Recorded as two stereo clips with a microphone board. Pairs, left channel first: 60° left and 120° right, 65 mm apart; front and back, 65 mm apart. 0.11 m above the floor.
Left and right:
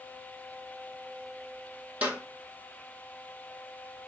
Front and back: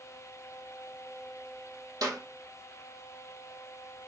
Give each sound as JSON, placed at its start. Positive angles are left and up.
{"t": 2.0, "sound": "a clap", "azimuth_deg": 170, "distance_m": 2.5}